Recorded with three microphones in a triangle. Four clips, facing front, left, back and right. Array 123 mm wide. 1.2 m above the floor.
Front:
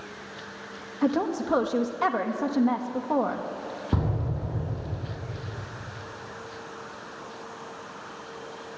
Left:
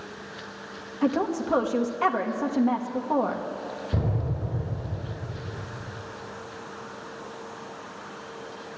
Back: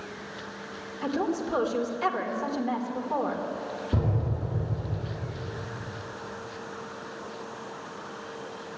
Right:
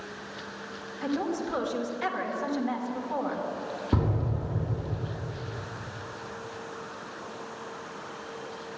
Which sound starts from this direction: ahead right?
An explosion, at 3.9 s.